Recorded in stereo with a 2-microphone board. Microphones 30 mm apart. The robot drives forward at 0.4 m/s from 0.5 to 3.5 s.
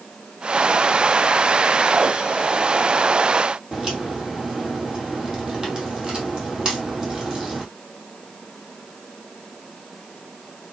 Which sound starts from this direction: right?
A crack, at 3.7 s.